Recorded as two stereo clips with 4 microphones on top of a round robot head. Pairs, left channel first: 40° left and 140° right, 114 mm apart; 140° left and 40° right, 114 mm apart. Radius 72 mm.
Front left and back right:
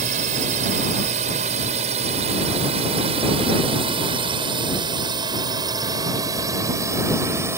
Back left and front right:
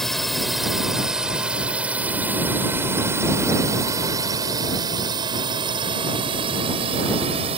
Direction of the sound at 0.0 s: 130° right.